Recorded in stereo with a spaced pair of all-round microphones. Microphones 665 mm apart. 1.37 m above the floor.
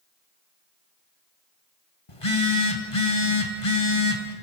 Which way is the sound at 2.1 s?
45° left (ahead or behind).